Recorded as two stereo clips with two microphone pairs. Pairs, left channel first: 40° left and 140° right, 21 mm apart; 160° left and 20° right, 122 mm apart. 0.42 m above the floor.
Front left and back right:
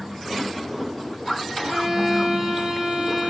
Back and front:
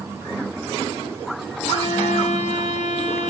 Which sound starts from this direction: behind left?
A violin, at 1.6 s.